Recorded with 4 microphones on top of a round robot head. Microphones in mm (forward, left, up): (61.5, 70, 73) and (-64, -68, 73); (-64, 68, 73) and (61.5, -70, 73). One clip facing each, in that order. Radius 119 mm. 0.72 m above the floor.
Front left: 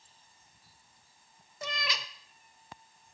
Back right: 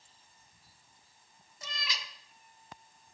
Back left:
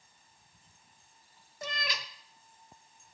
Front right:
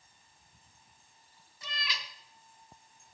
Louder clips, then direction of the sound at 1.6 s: Front left 7 dB, back left 6 dB; 85° left.